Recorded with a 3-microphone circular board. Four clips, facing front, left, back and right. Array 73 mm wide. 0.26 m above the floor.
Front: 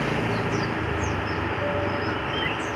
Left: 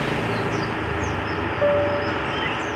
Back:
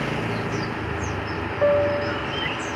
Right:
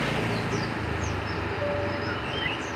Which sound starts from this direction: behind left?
A piano, at 1.6 s.